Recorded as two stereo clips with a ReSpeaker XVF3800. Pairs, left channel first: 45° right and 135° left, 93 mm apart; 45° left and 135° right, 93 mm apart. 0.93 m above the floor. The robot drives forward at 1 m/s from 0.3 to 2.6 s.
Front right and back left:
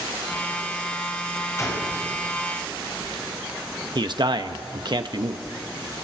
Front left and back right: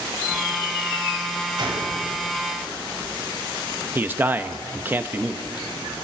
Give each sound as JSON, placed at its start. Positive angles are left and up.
{"t": 1.6, "sound": "a gunshot", "azimuth_deg": -100, "distance_m": 3.5}
{"t": 4.0, "sound": "a man speaking", "azimuth_deg": 160, "distance_m": 1.0}